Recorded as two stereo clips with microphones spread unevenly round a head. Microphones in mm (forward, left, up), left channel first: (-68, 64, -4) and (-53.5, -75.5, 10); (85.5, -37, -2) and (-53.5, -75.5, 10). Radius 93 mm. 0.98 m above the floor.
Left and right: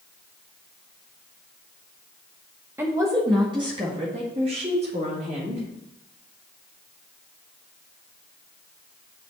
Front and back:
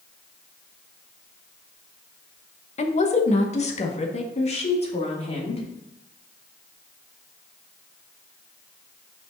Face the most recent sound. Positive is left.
turn(degrees=-25)